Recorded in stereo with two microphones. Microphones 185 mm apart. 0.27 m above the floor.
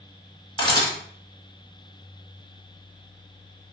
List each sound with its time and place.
0.6 s a camera shutter: 25° left (ahead or behind), 1.0 m